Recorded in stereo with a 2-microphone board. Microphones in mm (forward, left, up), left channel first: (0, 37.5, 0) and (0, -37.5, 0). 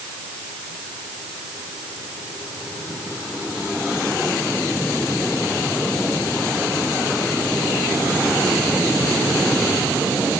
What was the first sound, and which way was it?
Only background noise.